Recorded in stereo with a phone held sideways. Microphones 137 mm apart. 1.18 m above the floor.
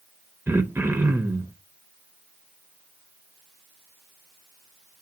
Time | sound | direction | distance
0.5 | throat clearing | 20° right (ahead or behind) | 0.7 m